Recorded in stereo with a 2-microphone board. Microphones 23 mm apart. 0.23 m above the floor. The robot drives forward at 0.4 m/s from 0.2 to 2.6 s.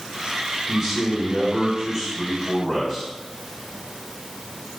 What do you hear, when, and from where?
0.7 s a man speaking: 20° right (ahead or behind), 2.0 m; by 3.1 s 15° right (ahead or behind), 2.5 m